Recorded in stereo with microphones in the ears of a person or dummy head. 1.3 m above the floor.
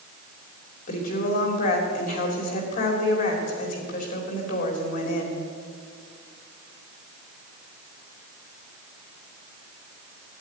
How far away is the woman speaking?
About 3 m.